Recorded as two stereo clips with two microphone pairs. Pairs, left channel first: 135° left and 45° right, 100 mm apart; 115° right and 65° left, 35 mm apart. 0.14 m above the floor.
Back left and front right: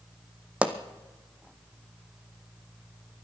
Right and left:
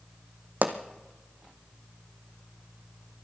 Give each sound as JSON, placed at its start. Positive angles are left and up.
{"t": 0.6, "sound": "a pop", "azimuth_deg": 30, "distance_m": 1.0}